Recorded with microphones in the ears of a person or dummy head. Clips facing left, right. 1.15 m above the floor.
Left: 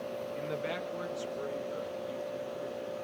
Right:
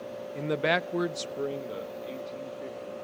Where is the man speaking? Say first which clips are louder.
Right 11 dB; 50° right (ahead or behind), 0.6 m; by 2.9 s 25° right (ahead or behind), 2 m.